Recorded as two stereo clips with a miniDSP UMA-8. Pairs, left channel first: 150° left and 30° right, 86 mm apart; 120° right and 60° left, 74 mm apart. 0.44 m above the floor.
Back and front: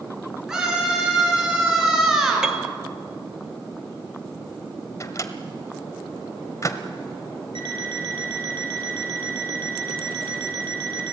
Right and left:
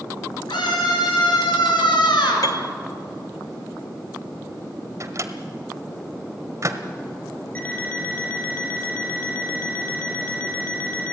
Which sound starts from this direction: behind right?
A scream, at 0.5 s.